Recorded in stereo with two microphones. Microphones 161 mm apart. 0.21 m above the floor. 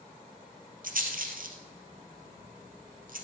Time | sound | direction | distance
0.8 | a rattle | 70° right (ahead or behind) | 2 m